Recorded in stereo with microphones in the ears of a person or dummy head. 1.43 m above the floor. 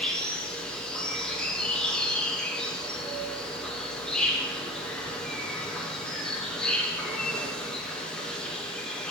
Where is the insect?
5° left (ahead or behind), 1.1 m.